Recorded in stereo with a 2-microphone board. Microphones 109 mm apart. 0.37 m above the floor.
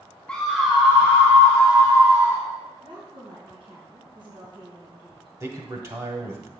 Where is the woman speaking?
50° right (ahead or behind), 3.5 m.